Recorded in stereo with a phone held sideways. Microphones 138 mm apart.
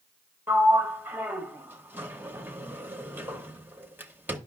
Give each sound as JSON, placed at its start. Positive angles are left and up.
{"t": 0.5, "sound": "a sliding door", "side_deg": -15, "distance_m": 0.8}